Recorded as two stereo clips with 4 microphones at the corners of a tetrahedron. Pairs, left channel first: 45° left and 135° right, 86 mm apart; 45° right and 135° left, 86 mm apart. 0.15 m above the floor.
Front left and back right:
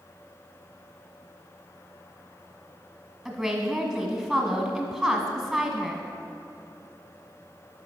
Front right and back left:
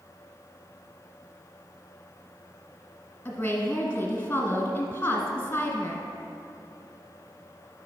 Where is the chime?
No chime in this recording.